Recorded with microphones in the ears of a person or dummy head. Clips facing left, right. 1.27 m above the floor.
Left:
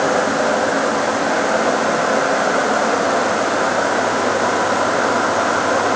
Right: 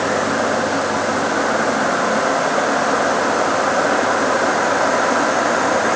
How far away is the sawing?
I don't hear sawing.